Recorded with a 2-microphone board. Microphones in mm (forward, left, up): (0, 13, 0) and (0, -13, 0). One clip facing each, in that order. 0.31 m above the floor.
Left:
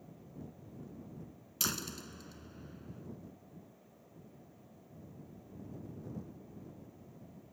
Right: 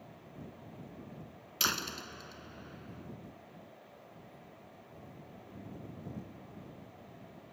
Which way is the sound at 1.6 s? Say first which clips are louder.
Right 5 dB; 35° right (ahead or behind).